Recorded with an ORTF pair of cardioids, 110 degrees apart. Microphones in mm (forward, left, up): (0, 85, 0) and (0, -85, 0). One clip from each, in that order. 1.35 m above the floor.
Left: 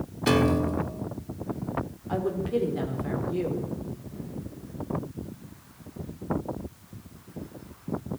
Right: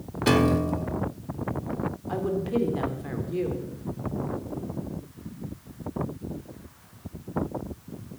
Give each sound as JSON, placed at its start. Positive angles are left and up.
{"t": 0.3, "sound": "a piano", "azimuth_deg": -5, "distance_m": 0.8}
{"t": 2.1, "sound": "a woman speaking", "azimuth_deg": -5, "distance_m": 4.5}